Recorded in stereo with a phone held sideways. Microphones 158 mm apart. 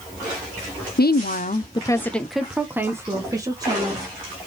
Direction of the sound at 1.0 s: 80° left.